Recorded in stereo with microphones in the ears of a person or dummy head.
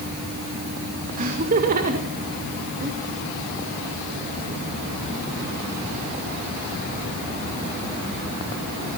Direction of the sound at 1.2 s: 45° right (ahead or behind).